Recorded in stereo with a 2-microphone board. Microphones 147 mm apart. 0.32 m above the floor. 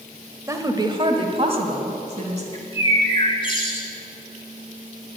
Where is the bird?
35° left (ahead or behind), 1.8 m.